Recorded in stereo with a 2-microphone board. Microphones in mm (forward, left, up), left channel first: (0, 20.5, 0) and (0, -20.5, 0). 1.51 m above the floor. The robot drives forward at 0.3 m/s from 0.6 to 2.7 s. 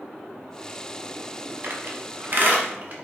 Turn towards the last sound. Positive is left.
turn(degrees=-40)  # may be behind; listen again after turning